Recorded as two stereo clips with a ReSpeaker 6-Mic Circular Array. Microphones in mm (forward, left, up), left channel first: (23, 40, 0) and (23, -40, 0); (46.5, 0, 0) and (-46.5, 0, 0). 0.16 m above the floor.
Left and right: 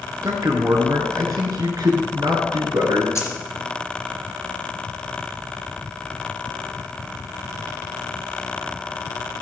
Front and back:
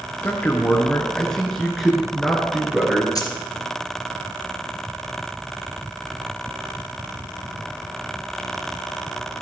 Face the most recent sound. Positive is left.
turn(degrees=40)